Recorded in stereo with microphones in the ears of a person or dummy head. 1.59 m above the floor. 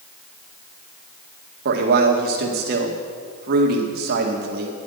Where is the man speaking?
60° right (ahead or behind), 1.8 m.